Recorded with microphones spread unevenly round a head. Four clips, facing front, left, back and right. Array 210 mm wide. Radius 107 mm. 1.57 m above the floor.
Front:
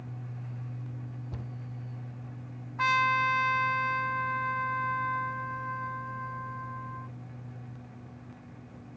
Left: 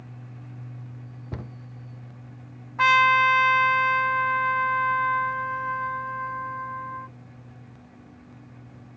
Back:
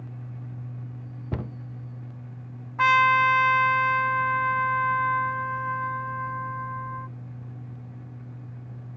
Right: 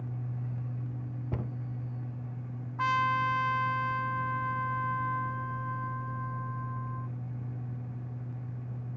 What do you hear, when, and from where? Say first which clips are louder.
1.3 s a cupboard door: even, back 14 dB; 170° right
2.8 s a trumpet: left 9 dB, back 7 dB; 115° left